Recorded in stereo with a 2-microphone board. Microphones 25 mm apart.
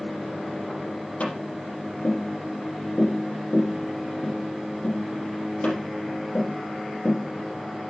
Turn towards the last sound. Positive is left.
turn(degrees=70)  # may be behind; listen again after turning